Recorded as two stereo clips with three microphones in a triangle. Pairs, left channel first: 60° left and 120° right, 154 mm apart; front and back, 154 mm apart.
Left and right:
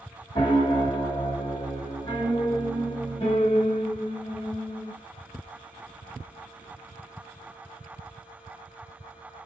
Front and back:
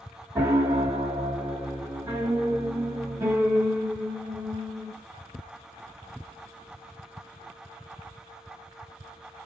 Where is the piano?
110° left, 1.1 m.